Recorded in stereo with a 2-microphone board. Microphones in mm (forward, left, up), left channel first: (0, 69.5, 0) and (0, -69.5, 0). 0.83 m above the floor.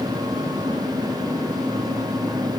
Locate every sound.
Only background noise.